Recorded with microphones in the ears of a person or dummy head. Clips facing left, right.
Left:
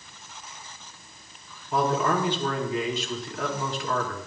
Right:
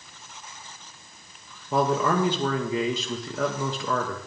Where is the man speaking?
70° right (ahead or behind), 1.6 m.